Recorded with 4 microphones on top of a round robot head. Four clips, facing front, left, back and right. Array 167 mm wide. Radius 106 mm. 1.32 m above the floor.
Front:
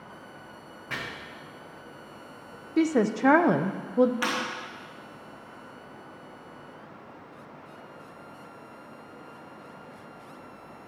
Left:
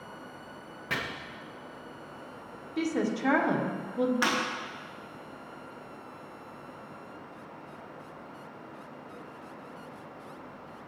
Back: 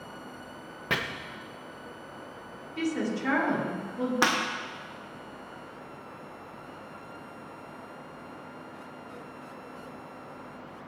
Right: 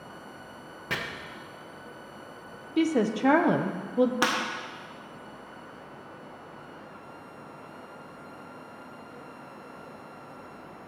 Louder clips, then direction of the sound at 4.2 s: Right 2 dB, back 4 dB; 140° right.